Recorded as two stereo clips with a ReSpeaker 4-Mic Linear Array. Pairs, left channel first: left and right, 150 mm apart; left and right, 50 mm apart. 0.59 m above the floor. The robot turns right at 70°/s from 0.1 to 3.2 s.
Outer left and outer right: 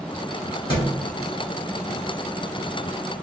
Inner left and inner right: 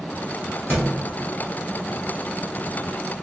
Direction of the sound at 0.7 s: 15° right (ahead or behind).